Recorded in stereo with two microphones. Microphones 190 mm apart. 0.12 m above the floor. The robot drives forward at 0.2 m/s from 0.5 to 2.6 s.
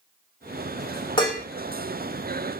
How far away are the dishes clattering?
About 1.0 m.